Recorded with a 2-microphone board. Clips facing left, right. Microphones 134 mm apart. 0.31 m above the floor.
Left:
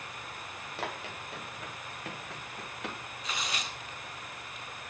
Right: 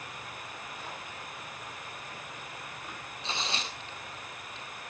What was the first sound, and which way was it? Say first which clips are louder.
Running footsteps: left 4 dB; 70° left (ahead or behind).